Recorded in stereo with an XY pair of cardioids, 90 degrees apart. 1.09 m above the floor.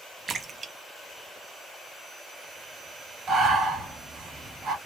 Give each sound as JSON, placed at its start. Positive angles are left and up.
{"t": 0.3, "sound": "a splash", "azimuth_deg": -40, "distance_m": 0.8}
{"t": 3.3, "sound": "breathing", "azimuth_deg": -55, "distance_m": 2.0}